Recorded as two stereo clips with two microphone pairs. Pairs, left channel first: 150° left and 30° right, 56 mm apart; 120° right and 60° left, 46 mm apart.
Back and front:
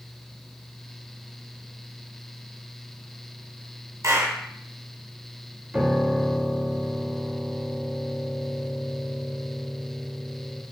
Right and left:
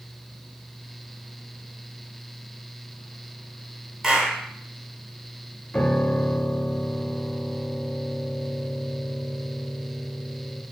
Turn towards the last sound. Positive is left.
turn(degrees=-75)